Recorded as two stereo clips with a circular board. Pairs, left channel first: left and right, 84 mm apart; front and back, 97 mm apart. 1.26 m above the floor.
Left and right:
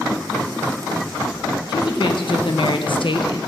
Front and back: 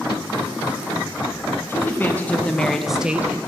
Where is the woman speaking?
65° left, 1.6 m; by 3.4 s 115° left, 0.7 m.